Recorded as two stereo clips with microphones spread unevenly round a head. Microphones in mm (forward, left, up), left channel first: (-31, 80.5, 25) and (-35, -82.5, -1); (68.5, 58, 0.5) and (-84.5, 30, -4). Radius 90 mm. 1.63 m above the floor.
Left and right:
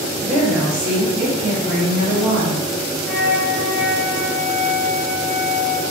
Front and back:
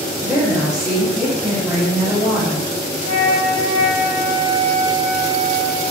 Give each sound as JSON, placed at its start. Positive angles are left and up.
{"t": 0.2, "sound": "a woman speaking", "azimuth_deg": -75, "distance_m": 1.3}
{"t": 3.0, "sound": "a flute", "azimuth_deg": 10, "distance_m": 0.6}